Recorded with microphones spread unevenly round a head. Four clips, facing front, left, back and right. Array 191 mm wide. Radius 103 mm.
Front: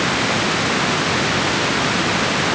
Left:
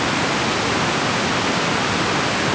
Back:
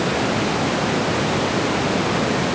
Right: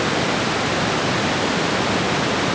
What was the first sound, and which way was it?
Only background noise.